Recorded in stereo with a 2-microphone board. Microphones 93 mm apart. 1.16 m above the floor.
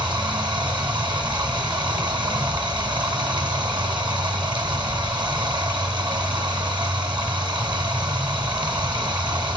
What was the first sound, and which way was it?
Running water, 55° right (ahead or behind).